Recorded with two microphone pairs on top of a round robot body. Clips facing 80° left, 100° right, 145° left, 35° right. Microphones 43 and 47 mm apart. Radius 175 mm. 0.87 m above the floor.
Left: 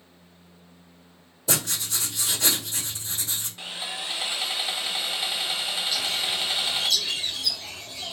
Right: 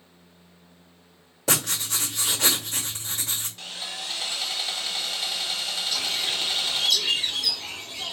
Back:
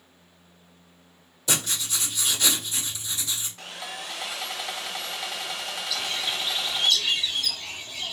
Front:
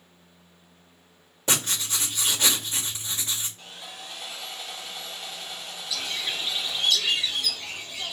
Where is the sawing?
150° left, 0.5 m.